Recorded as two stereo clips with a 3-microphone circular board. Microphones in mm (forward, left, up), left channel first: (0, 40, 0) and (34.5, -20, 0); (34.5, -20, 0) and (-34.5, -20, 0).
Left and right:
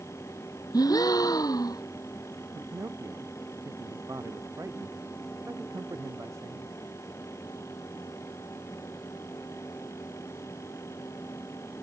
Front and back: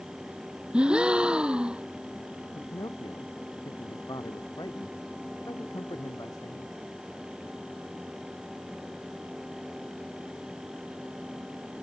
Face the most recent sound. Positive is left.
turn(degrees=-20)